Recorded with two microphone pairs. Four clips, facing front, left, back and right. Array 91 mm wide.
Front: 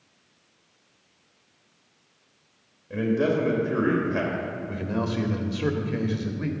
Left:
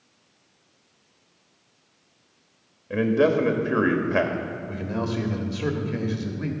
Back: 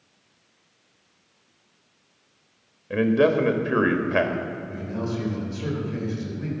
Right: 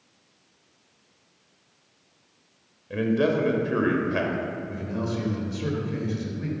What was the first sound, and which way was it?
A man speaking, 150° left.